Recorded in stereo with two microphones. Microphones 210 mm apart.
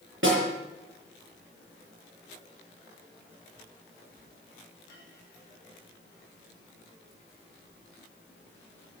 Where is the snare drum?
75° right (ahead or behind), 9 m.